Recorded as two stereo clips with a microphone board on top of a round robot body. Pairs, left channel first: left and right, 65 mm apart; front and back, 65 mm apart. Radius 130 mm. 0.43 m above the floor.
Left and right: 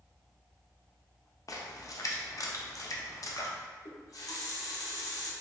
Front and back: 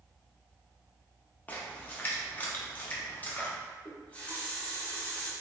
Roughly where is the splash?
Ahead left.